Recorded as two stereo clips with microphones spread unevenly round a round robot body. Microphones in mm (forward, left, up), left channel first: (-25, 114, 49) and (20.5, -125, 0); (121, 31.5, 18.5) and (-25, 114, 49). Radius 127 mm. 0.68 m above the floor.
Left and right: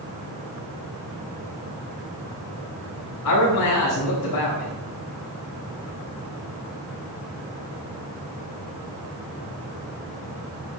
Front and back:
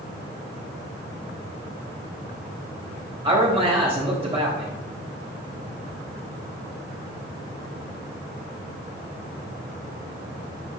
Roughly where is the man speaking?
Left.